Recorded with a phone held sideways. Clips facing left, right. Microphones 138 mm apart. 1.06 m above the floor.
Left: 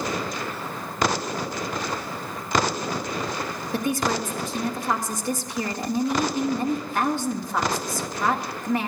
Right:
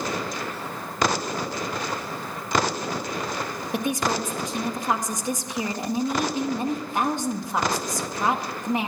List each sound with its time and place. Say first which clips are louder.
3.7 s a woman speaking: left 1 dB; 20° right (ahead or behind), 1.6 m